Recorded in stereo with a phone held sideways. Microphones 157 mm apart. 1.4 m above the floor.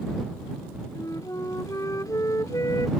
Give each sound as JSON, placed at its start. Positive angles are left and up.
{"t": 0.9, "sound": "a flute", "side_deg": 20}